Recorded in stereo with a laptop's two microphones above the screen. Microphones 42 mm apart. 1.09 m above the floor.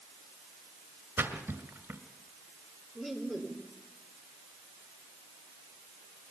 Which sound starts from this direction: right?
A splash, at 1.2 s.